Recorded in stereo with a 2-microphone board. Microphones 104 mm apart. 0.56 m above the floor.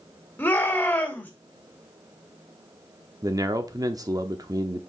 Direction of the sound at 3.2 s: 40° right (ahead or behind).